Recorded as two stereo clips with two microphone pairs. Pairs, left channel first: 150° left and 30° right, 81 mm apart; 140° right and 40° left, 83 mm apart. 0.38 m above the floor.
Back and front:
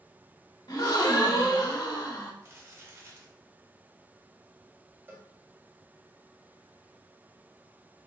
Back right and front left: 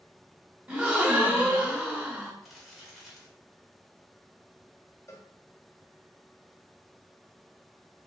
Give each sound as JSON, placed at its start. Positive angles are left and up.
{"t": 0.7, "sound": "a gasp", "azimuth_deg": 115, "distance_m": 0.8}
{"t": 2.4, "sound": "crumpling", "azimuth_deg": -50, "distance_m": 0.9}
{"t": 5.1, "sound": "a cowbell", "azimuth_deg": -90, "distance_m": 0.7}